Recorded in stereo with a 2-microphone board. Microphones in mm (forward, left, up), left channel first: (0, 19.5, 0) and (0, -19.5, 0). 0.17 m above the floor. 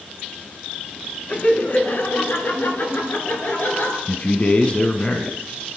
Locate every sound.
1.3 s laughter: 40° left (ahead or behind), 1.6 m; by 4.0 s 60° left (ahead or behind), 3 m
4.1 s a man speaking: 30° left (ahead or behind), 1.5 m